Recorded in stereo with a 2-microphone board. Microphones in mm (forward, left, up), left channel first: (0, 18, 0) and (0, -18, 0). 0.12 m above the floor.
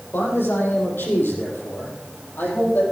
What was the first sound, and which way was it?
A man speaking, 70° left (ahead or behind).